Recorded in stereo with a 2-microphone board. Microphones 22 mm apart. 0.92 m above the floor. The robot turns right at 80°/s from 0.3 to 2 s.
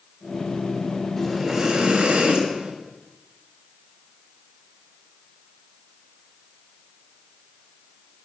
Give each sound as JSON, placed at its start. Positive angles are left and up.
{"t": 1.2, "sound": "breathing", "azimuth_deg": 165, "distance_m": 2.5}